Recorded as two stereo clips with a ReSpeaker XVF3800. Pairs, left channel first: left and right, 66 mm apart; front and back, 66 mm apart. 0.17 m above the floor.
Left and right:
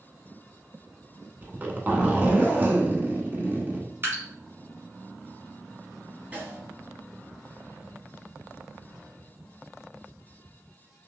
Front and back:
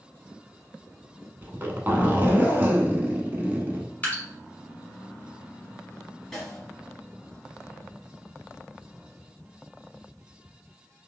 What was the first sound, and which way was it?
A zipper, 135° right.